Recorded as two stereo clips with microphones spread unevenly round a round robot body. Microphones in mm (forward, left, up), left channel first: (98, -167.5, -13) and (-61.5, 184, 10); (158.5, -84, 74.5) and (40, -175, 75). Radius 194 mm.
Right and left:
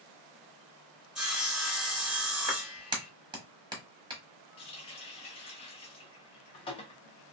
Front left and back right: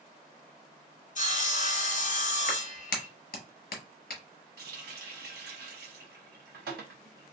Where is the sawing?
25° left, 1.0 m.